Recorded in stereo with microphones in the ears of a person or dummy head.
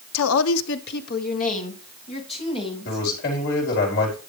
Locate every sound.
0.1 s a woman speaking: 80° left, 0.8 m; by 3.0 s 30° left (ahead or behind), 3 m
2.9 s a man speaking: 55° left (ahead or behind), 4.5 m